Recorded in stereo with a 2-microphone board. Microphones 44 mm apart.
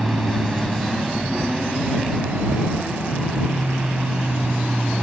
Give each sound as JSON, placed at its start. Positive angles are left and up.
{"t": 0.0, "sound": "an aircraft", "side_deg": 5}